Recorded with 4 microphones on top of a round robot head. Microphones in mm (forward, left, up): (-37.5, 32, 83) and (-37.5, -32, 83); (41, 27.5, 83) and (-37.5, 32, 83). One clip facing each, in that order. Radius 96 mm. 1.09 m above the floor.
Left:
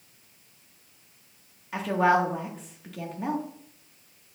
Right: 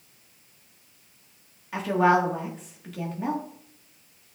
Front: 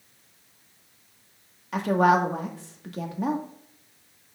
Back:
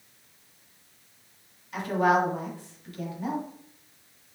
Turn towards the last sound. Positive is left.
turn(degrees=0)